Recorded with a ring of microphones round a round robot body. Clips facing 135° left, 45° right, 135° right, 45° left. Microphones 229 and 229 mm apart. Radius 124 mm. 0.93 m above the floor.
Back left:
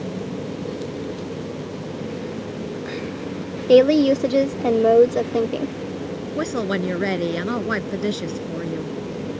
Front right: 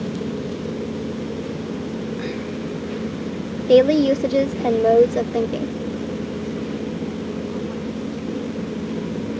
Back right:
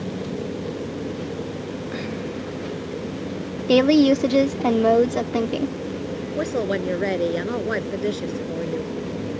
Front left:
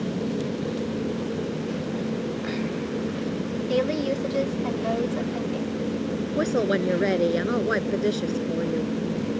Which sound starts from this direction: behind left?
A woman speaking, at 6.4 s.